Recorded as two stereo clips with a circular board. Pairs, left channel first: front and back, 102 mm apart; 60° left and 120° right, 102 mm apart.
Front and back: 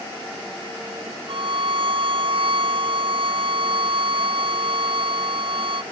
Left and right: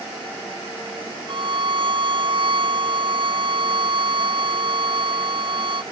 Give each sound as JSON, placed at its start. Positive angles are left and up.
{"t": 1.3, "sound": "a violin", "azimuth_deg": -150}